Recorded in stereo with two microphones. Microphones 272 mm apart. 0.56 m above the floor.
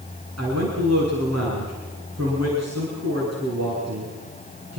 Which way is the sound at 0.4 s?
70° right (ahead or behind).